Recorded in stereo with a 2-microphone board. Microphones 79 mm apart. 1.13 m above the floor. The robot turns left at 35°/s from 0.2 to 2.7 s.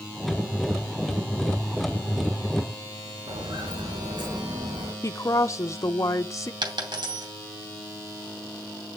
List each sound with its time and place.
3.3 s footsteps: 80° right, 6 m; by 4.9 s 70° right (ahead or behind), 5.5 m
5.0 s a woman speaking: 40° left (ahead or behind), 0.6 m
6.6 s a dropped coin: 75° right (ahead or behind), 2.5 m